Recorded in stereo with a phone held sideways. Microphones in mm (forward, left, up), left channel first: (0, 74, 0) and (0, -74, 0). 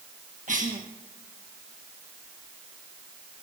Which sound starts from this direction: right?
A cough, at 0.5 s.